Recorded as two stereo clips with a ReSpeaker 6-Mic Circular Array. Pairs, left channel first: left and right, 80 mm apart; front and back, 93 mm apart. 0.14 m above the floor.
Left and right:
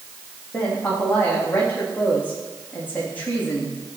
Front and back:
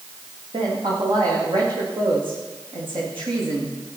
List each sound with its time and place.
0.5 s a woman speaking: 160° left, 7.5 m